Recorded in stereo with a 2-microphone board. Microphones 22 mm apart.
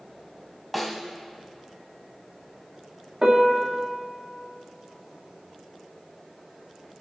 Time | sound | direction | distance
0.7 | a snare drum | centre (ahead or behind) | 1.6 m
3.2 | a piano | 30° right (ahead or behind) | 1.8 m